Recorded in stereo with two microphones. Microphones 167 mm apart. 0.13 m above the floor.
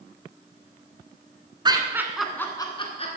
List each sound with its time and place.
1.6 s laughter: 25° right (ahead or behind), 1.3 m; by 3.1 s 40° left (ahead or behind), 1.4 m